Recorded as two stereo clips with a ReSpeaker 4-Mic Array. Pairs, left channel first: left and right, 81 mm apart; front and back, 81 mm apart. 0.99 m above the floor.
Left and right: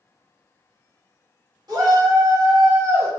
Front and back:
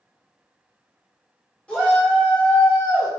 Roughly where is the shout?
Right.